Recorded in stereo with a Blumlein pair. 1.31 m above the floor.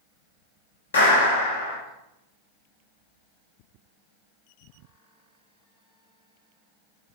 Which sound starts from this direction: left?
A clap, at 0.9 s.